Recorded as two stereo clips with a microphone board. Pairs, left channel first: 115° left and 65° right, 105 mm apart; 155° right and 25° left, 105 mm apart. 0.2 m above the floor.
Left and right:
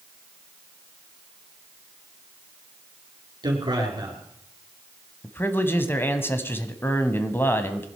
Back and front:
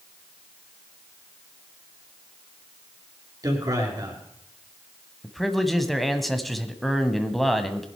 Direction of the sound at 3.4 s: 30° right.